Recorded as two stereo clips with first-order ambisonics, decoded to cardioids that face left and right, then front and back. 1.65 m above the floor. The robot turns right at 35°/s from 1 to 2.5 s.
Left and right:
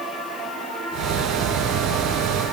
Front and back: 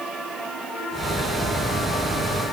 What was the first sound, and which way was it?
Only background noise.